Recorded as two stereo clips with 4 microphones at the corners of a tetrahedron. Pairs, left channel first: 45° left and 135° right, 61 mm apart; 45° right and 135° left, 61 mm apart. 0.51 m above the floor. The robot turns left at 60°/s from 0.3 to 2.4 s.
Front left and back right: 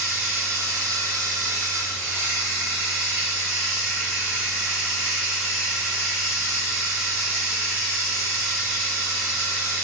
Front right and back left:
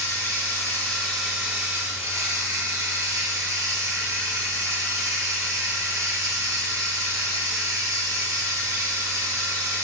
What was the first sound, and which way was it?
Running water, 80° right.